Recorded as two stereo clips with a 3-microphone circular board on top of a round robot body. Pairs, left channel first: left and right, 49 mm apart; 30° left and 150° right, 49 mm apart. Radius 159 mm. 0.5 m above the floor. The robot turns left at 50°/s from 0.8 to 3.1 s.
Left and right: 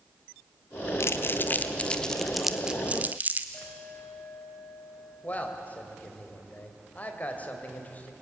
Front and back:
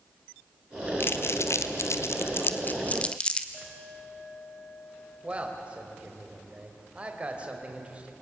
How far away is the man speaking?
About 3 m.